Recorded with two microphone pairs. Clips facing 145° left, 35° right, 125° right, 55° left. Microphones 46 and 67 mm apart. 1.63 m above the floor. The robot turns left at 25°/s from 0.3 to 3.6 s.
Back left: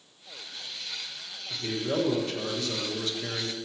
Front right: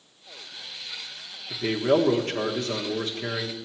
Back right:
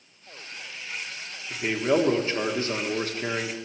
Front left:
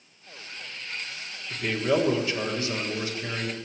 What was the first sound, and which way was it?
A man speaking, 55° right.